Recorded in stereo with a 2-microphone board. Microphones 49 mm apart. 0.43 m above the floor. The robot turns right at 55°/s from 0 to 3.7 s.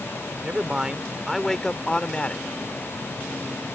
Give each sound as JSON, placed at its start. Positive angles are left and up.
{"t": 0.4, "sound": "a man speaking", "azimuth_deg": -50}